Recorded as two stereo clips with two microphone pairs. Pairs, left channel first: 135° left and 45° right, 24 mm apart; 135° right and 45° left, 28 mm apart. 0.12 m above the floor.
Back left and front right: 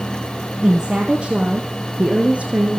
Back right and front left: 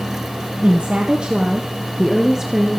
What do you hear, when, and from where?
0.6 s a woman speaking: 15° left, 2 m; by 2.8 s 30° right, 2.5 m